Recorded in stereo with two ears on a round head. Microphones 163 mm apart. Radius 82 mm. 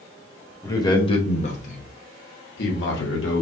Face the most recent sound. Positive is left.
turn(degrees=75)  # may be behind; listen again after turning